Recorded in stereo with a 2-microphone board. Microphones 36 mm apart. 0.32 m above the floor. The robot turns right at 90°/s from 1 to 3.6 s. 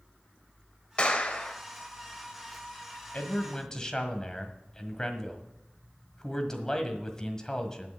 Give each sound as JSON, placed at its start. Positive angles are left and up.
{"t": 1.0, "sound": "a clap", "azimuth_deg": 65, "distance_m": 1.4}
{"t": 3.1, "sound": "a man speaking", "azimuth_deg": 115, "distance_m": 1.5}